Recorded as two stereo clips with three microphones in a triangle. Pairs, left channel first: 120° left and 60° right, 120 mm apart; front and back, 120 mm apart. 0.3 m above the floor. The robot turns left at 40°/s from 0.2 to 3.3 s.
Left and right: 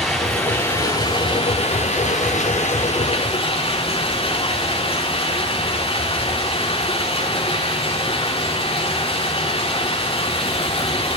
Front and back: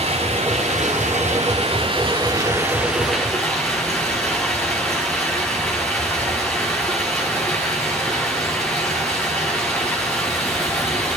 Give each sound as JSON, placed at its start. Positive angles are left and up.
{"t": 0.0, "sound": "running water", "azimuth_deg": -155, "distance_m": 4.5}